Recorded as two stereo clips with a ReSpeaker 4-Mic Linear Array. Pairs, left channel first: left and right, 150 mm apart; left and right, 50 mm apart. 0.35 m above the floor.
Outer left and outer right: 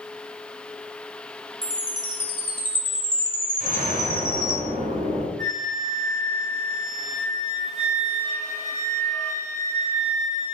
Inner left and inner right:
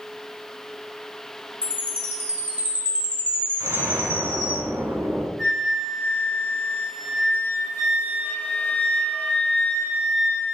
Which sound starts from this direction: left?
A flute, at 5.4 s.